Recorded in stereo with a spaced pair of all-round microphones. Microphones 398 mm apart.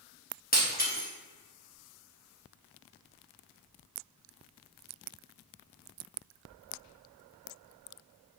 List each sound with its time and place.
0.5 s breaking glass: 20° left (ahead or behind), 0.9 m